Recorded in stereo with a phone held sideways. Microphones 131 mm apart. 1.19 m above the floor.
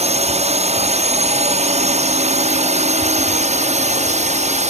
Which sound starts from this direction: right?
A drone, at 0.0 s.